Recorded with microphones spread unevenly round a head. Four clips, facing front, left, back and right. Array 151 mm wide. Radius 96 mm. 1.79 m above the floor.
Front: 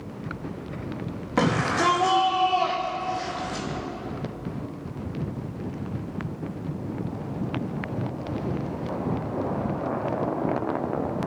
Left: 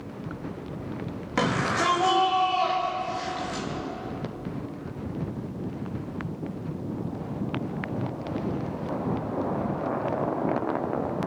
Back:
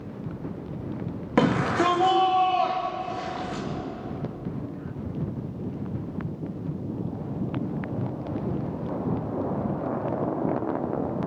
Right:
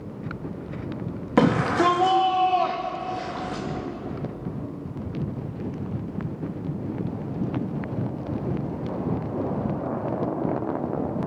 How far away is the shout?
About 3 m.